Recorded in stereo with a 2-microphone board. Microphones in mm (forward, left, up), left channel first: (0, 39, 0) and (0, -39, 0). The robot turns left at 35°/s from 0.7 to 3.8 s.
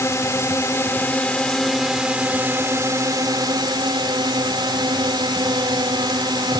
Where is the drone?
35° left; by 6.6 s 70° right.